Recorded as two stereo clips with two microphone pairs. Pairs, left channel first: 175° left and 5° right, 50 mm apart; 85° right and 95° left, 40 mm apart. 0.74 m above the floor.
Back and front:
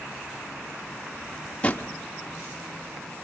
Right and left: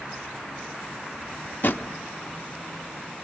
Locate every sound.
1.6 s a drawer: 120° right, 0.9 m